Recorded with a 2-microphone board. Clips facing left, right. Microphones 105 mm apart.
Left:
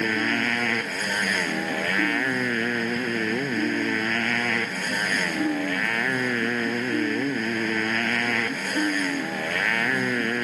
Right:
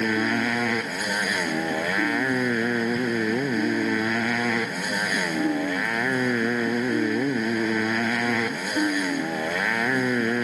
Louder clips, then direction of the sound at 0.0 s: Right 2 dB; 10° right (ahead or behind).